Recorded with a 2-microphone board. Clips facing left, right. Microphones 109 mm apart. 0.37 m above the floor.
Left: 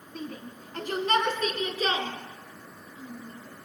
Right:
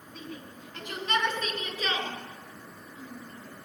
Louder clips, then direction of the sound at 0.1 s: Left 4 dB; 45° left (ahead or behind).